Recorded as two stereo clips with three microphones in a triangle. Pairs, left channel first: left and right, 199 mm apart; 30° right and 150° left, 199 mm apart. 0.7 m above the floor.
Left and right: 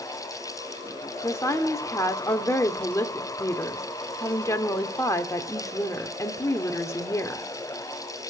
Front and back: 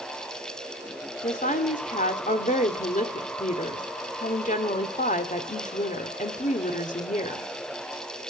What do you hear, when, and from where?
1.2 s a woman speaking: 15° left, 2 m